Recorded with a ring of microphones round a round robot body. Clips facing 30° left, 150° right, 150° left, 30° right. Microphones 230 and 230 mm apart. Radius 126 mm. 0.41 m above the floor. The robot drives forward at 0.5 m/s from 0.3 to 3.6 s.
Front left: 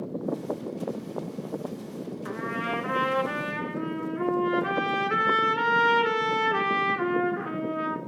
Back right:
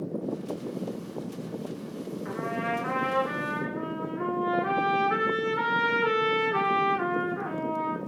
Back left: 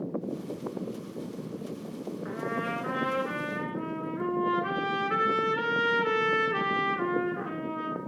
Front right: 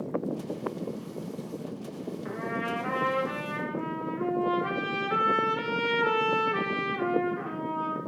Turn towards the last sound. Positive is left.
turn(degrees=85)